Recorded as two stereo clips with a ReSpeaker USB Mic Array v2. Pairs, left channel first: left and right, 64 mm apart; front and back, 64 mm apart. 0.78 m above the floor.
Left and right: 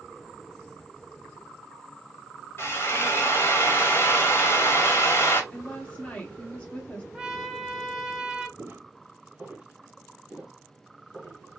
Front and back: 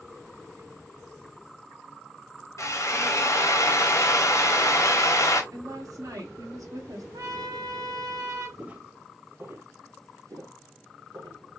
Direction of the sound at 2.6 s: 40° left.